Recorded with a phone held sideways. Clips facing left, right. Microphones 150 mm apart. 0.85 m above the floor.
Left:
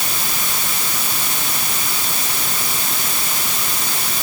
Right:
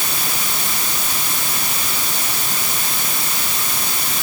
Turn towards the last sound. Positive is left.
No sound to turn to.